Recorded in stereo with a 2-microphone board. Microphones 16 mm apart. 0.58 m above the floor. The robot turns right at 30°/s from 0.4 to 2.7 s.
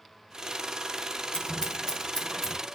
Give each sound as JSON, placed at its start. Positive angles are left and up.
{"t": 1.3, "sound": "scissors", "side_deg": 60, "distance_m": 5.0}